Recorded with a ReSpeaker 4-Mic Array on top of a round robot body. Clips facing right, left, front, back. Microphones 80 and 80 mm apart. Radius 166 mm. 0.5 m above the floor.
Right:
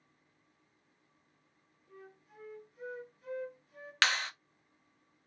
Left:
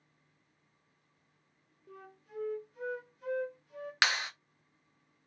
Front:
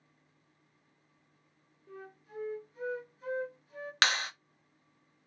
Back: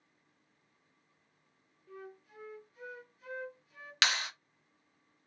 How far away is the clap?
About 1.1 m.